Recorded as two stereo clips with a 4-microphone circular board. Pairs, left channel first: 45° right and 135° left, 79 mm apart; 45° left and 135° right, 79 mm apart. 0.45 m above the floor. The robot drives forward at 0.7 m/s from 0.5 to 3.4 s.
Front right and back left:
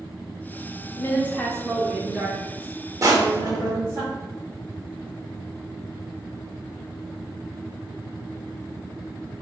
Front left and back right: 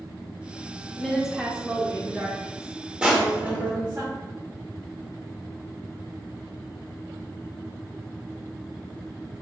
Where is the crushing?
150° left, 0.7 m; by 3.8 s 160° left, 0.9 m.